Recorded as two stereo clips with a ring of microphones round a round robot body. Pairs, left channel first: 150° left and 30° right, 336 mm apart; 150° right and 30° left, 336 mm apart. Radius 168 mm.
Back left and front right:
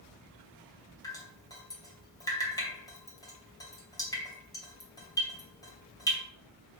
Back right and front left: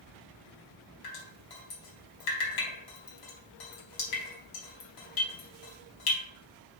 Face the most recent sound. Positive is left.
turn(degrees=-130)